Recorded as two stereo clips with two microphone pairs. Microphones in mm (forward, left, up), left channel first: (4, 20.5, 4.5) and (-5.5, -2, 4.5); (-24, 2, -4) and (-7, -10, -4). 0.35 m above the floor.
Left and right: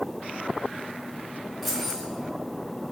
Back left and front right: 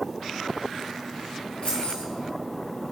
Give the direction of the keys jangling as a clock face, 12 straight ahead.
7 o'clock.